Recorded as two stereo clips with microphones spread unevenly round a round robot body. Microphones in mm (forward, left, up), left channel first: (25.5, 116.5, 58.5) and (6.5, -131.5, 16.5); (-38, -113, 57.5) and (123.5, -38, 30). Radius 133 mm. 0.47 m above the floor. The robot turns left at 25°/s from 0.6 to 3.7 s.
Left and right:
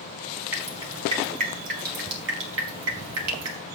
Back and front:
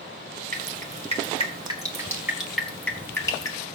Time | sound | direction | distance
0.5 | dripping | 15° right | 4.5 m